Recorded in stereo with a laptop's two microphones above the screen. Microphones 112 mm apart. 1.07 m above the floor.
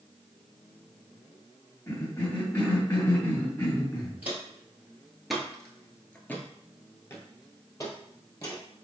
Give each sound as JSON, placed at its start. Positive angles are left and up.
{"t": 1.9, "sound": "a cough", "side_deg": 35, "distance_m": 1.7}
{"t": 4.2, "sound": "footsteps", "side_deg": -15, "distance_m": 1.3}